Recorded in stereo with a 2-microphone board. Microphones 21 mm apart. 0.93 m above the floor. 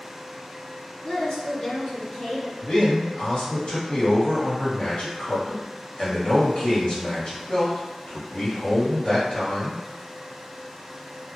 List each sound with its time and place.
1.0 s a woman speaking: 55° left (ahead or behind), 1.2 m
2.6 s a man speaking: 50° left (ahead or behind), 1.6 m